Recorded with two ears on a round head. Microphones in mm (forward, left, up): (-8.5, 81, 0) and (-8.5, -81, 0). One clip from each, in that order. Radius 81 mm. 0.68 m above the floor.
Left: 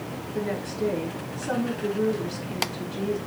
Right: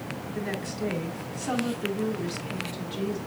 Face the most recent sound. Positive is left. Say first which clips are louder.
# left 4 dB
turn(degrees=-60)  # may be behind; listen again after turning